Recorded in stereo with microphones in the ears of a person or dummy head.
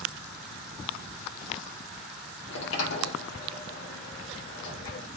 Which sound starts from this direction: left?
A sliding door, at 2.5 s.